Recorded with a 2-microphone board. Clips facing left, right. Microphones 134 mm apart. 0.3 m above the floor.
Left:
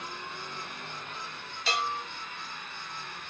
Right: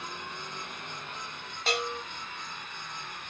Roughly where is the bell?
Right.